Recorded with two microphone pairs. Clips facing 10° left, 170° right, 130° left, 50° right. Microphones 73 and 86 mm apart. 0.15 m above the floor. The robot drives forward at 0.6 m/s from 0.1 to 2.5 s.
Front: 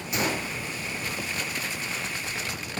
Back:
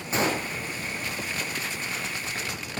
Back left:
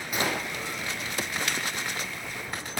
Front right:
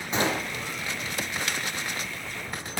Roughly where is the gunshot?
Right.